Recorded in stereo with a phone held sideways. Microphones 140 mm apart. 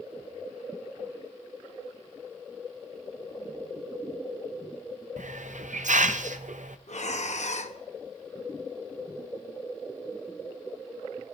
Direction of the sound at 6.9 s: 60° left (ahead or behind).